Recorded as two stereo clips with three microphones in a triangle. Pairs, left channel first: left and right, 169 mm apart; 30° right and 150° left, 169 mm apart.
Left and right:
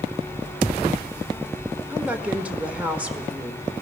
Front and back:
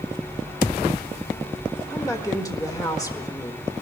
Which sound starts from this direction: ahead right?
A woman speaking, at 1.9 s.